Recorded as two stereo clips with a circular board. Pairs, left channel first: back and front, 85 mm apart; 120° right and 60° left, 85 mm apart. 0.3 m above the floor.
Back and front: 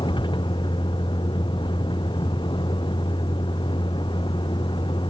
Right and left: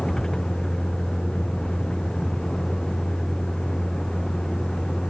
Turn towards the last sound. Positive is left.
turn(degrees=160)